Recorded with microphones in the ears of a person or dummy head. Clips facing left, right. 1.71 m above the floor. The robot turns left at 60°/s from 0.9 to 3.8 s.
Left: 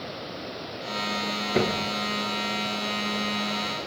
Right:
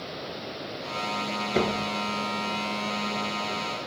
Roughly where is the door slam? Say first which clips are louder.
Left 1 dB; centre.